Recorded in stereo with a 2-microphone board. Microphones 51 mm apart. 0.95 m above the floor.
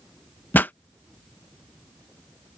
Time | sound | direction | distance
0.5 | a pop | 40° left (ahead or behind) | ?